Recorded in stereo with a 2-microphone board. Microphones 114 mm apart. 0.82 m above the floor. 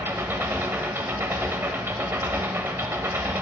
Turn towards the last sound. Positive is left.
turn(degrees=-20)  # may be behind; listen again after turning